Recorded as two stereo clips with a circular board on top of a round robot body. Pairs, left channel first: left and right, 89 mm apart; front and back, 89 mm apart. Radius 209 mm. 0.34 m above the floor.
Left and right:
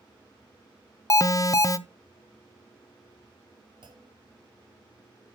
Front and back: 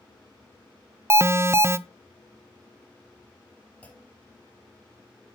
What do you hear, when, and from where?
1.1 s an alarm: 130° left, 0.7 m
3.8 s a clunk: 75° right, 2.5 m